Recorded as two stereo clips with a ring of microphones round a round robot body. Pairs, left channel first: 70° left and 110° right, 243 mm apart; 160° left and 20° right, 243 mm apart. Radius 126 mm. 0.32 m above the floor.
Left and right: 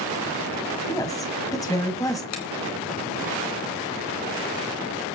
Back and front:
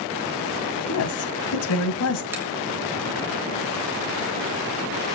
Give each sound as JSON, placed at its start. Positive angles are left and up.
{"t": 0.9, "sound": "a woman speaking", "azimuth_deg": 145, "distance_m": 1.9}
{"t": 2.3, "sound": "a finger snap", "azimuth_deg": 60, "distance_m": 3.0}